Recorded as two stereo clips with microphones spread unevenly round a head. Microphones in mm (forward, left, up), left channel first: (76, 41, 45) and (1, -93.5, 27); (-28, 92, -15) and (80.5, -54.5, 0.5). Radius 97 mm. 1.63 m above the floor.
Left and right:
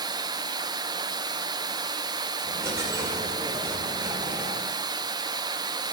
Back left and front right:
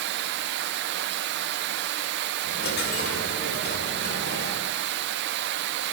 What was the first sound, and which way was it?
Running water, 50° right.